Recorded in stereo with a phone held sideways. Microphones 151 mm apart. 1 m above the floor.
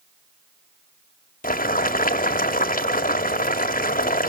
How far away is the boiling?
About 1.5 m.